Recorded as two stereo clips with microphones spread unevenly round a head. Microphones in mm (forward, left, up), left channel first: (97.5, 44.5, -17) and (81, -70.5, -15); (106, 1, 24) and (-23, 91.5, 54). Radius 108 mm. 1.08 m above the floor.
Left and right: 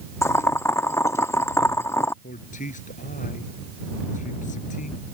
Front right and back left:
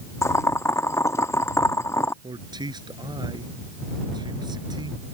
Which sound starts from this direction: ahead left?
Boiling, at 0.2 s.